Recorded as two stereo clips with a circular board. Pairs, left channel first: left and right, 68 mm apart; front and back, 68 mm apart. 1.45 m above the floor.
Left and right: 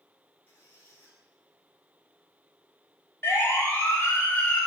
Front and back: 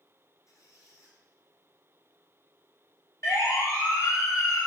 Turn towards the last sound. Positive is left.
turn(degrees=25)